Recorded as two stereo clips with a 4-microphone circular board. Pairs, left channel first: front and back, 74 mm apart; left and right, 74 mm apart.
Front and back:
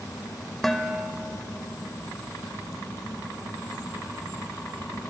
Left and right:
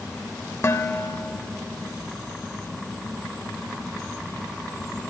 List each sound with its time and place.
0.6 s dishes clattering: 85° left, 0.7 m